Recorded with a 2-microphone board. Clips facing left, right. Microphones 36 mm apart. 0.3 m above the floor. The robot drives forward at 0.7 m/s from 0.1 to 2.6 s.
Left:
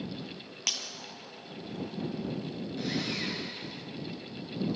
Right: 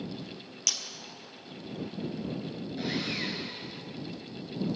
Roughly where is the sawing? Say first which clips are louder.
Right 1 dB; centre.